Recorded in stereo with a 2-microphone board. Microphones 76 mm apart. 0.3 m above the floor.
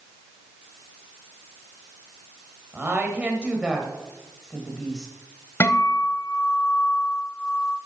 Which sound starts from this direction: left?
A guitar, at 5.6 s.